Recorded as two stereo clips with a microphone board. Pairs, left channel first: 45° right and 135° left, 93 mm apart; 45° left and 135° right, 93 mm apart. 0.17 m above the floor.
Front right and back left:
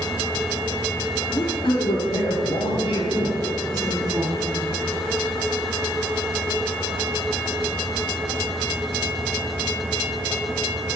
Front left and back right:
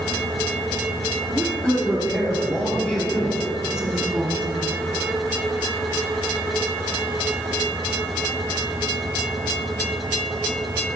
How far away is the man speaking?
About 2.5 m.